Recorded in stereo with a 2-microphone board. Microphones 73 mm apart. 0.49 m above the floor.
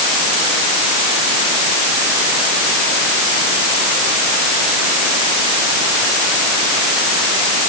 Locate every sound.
Only background noise.